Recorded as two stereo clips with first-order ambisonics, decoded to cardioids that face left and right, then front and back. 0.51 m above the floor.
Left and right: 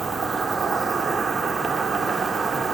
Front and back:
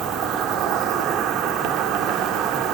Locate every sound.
0.0 s an insect: 165° right, 0.7 m